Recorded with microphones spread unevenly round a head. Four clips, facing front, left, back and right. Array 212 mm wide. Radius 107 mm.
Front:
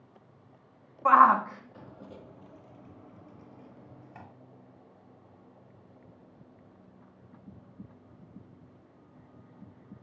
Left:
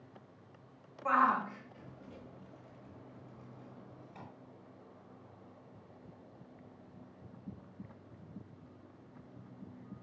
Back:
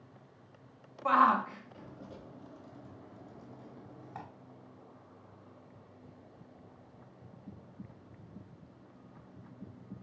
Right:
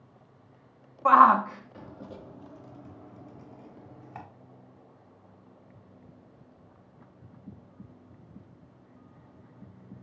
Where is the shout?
70° right, 1.5 m; by 4.2 s 115° right, 2.5 m.